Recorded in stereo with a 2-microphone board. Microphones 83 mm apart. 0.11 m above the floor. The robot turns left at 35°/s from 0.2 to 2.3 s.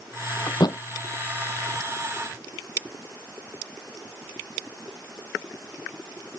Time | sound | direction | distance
0.5 | a thud | 60° left (ahead or behind) | ?